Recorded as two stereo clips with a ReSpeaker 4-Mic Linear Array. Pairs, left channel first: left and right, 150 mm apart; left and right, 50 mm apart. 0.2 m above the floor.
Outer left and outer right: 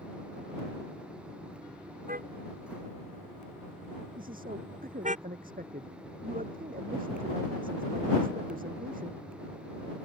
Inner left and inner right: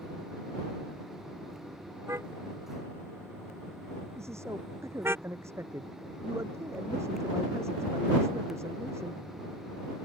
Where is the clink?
I don't hear a clink.